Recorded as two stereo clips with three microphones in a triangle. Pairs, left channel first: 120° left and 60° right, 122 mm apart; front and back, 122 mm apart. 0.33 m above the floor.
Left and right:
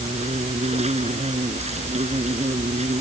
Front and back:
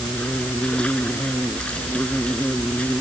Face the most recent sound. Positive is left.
turn(degrees=-80)